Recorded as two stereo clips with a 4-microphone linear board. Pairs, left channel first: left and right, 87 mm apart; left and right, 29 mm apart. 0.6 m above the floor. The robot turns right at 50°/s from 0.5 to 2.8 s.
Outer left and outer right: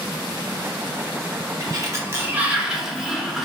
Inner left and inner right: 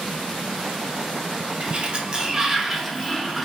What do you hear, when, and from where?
1.6 s a sliding door: 65° right, 0.6 m; by 3.5 s 5° right, 0.6 m